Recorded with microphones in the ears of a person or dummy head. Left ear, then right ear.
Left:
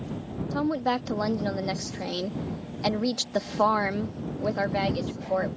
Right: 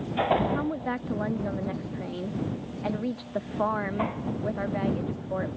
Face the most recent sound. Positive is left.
turn(degrees=80)